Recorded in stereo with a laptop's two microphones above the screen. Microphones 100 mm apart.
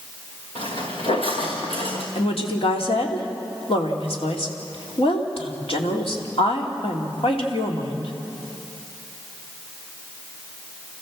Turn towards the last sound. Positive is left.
turn(degrees=75)  # may be behind; listen again after turning